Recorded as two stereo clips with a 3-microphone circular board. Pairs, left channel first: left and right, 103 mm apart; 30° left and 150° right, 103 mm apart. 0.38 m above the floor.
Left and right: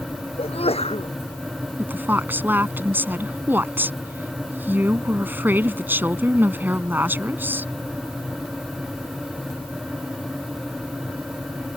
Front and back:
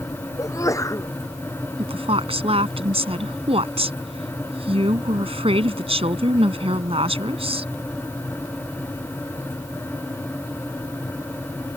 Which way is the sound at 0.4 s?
85° left.